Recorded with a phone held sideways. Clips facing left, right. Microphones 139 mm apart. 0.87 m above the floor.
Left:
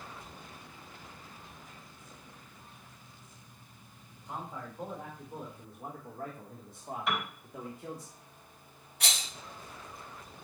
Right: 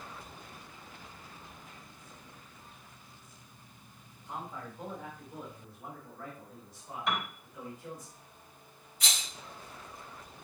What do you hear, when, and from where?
4.2 s a man speaking: 15° left (ahead or behind), 4 m; by 8.1 s 75° left (ahead or behind), 2.5 m
7.1 s a piano: centre (ahead or behind), 3.5 m
9.0 s a rattle: 70° left (ahead or behind), 2.5 m